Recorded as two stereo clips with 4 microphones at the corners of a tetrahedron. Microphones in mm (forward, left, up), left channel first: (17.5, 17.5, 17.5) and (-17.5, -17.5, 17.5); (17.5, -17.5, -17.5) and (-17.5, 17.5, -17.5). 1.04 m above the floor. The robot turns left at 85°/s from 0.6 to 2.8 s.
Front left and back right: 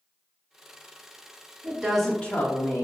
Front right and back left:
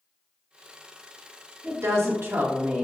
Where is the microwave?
I don't hear a microwave.